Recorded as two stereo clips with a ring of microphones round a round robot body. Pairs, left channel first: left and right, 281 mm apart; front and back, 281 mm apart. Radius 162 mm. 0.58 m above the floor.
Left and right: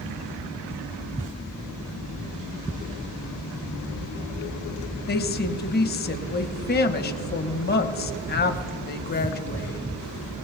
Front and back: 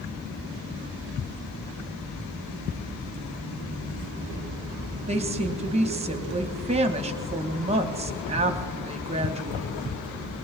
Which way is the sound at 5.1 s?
125° left.